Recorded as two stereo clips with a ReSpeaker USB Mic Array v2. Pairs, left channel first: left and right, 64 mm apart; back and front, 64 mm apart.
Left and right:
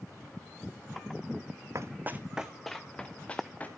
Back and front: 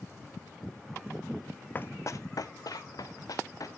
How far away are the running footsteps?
About 0.6 m.